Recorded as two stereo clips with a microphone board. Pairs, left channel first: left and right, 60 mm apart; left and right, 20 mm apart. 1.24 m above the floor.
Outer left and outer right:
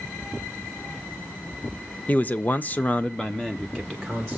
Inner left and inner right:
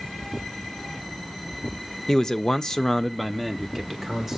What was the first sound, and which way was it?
A man speaking, 30° left (ahead or behind).